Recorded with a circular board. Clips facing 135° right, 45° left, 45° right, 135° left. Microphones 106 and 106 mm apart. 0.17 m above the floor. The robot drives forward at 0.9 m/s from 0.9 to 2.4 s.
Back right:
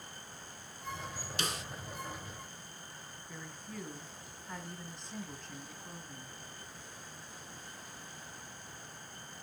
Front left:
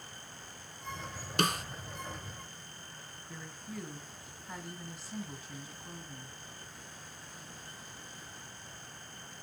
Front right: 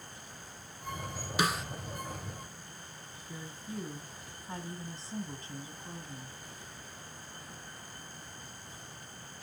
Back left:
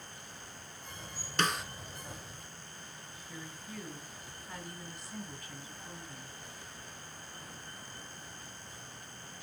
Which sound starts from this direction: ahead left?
A snare drum, at 1.4 s.